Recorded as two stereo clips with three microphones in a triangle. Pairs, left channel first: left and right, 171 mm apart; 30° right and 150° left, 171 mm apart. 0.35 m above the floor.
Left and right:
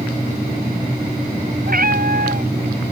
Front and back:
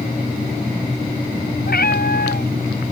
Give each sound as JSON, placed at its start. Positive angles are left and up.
{"t": 1.7, "sound": "a cat meowing", "azimuth_deg": -55}